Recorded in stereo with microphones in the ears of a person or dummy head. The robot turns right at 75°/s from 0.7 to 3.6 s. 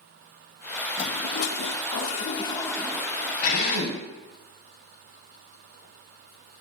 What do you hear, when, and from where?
1.0 s a toilet flushing: 40° left, 0.8 m; by 3.3 s 145° right, 0.8 m
3.4 s a drill: 55° left (ahead or behind), 3.5 m; by 4.0 s 70° left (ahead or behind), 3.5 m